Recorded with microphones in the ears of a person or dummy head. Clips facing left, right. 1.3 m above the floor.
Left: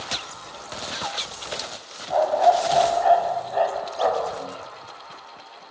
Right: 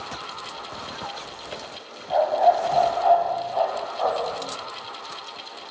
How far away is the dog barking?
About 1.5 m.